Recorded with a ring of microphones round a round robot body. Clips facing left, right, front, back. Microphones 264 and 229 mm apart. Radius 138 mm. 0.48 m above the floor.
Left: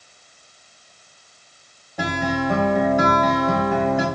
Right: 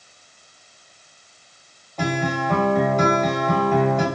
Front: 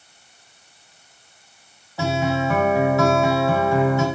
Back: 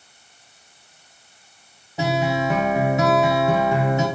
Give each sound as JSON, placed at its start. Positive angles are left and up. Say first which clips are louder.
{"t": 2.0, "sound": "a guitar", "louder": "left 1 dB, even", "azimuth_deg": 150, "distance_m": 1.1}